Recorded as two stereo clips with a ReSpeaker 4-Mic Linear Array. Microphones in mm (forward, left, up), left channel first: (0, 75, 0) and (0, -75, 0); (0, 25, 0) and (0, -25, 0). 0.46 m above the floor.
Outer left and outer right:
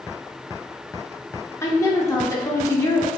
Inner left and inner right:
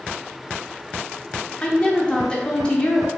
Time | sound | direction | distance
1.6 | a woman speaking | 20° left (ahead or behind) | 0.7 m